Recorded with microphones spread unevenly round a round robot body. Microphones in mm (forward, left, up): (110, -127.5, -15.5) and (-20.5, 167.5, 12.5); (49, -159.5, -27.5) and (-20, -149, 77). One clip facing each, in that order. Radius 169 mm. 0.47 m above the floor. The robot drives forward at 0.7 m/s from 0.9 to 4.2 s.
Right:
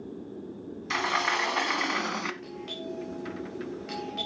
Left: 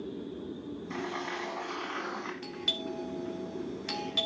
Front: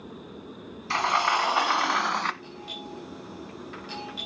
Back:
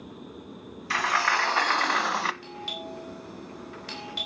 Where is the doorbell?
130° left, 2.5 m; by 4.3 s 145° left, 3.5 m.